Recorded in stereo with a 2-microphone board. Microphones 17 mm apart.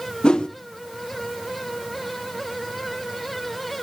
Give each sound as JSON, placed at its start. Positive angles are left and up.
{"t": 0.2, "sound": "a whoosh", "side_deg": 65, "distance_m": 1.0}